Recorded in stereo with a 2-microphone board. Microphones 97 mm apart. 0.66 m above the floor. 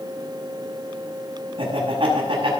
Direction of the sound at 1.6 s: 60° right (ahead or behind).